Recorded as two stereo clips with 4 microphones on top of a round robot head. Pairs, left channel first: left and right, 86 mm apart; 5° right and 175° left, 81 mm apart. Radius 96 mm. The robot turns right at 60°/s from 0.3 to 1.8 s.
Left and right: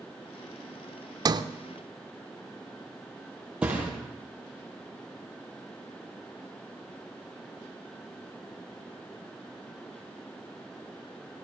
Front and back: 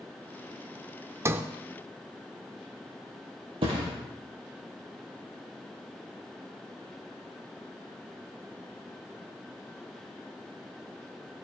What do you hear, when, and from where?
1.2 s a sliding door: 130° right, 0.8 m; by 1.4 s 120° right, 0.8 m
3.6 s a thud: 170° right, 4.5 m